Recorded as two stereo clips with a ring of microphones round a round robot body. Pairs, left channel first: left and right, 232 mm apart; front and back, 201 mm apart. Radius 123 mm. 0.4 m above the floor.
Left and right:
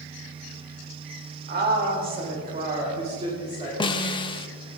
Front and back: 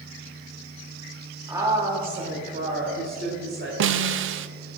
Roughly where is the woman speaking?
Right.